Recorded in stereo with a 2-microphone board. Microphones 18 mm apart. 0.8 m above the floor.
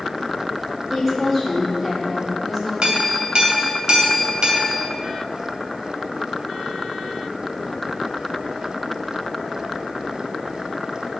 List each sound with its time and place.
0.9 s a woman speaking: 15° right (ahead or behind), 3.5 m
2.8 s a clink: 55° right (ahead or behind), 2.5 m